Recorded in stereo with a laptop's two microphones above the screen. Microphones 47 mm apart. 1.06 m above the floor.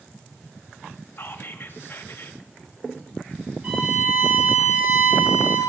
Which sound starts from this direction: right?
A violin, at 3.6 s.